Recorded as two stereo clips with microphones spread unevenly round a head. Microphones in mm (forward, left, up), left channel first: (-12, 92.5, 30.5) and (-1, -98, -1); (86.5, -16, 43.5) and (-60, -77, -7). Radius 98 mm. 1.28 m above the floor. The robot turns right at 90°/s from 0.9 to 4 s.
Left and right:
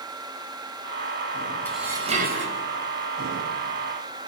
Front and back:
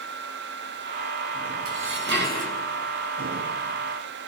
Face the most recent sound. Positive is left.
turn(degrees=25)